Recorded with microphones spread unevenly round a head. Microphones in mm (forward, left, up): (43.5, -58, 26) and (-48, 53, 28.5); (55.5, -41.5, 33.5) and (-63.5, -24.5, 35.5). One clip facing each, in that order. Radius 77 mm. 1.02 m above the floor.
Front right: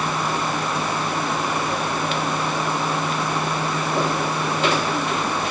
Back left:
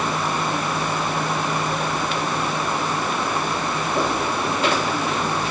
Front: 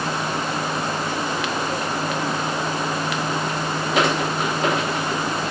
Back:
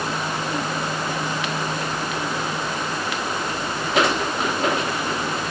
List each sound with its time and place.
Only background noise.